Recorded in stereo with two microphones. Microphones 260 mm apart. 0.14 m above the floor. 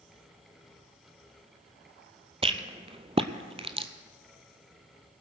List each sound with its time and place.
2.4 s a rattle: 20° right (ahead or behind), 0.8 m